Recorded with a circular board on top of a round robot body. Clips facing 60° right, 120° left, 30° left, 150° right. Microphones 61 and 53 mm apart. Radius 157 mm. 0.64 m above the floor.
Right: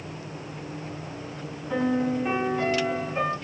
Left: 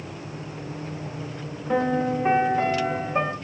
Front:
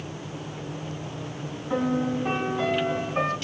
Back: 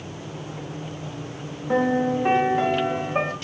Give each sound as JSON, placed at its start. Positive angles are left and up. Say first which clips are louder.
{"t": 1.7, "sound": "a piano", "louder": "left 2 dB, back 4 dB", "azimuth_deg": 165, "distance_m": 0.9}